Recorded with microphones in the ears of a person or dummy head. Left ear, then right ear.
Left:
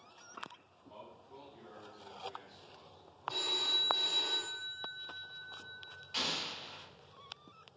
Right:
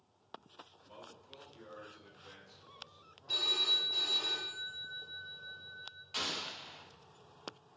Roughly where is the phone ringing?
Right.